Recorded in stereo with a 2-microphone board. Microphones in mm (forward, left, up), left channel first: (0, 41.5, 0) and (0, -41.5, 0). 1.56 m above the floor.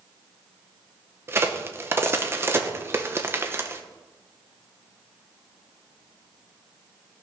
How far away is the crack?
About 1.0 m.